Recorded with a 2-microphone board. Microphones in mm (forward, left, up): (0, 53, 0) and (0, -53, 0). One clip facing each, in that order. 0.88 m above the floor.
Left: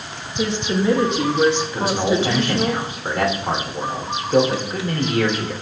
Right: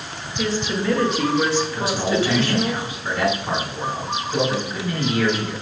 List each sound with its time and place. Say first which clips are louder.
0.4 s a woman speaking: left 3 dB; 20° left (ahead or behind), 1.0 m
1.7 s a man speaking: left 2 dB; 55° left (ahead or behind), 3 m